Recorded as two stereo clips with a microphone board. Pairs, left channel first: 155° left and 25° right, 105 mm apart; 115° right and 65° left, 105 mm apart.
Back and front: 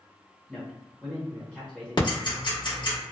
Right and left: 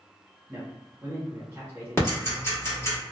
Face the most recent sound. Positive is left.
turn(degrees=-170)